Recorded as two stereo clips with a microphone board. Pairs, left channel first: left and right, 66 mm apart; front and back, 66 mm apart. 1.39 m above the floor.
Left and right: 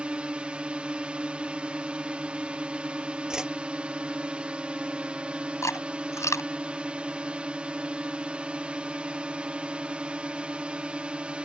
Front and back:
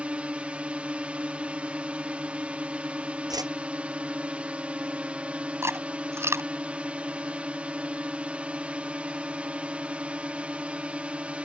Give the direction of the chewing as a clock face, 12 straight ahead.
8 o'clock.